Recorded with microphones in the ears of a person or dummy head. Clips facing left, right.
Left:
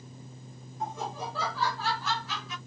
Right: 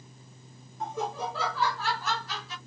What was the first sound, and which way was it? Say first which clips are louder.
Laughter: right 3 dB; 60° right (ahead or behind).